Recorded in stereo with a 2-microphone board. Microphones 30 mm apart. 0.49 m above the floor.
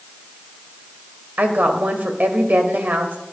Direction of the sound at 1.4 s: 65° right (ahead or behind).